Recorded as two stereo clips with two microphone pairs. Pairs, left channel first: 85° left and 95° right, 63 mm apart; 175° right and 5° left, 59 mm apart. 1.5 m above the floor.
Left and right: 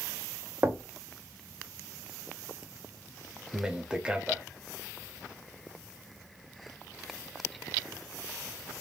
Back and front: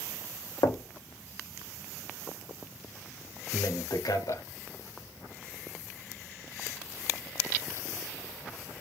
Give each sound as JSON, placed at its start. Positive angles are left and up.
{"t": 0.6, "sound": "knocking", "azimuth_deg": -150, "distance_m": 0.5}
{"t": 3.5, "sound": "a man speaking", "azimuth_deg": -175, "distance_m": 0.8}